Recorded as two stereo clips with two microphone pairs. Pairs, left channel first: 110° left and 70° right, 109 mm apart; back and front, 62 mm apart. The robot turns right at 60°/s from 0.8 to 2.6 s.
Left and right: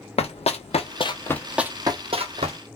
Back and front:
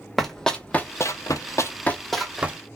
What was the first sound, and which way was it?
Running footsteps, 95° left.